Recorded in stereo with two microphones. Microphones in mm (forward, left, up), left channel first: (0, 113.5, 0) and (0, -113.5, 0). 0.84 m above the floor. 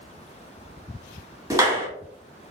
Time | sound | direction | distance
1.5 | a clap | 10° right (ahead or behind) | 1.5 m